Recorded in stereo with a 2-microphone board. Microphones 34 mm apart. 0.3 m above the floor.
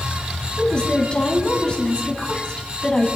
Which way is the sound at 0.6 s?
25° left (ahead or behind).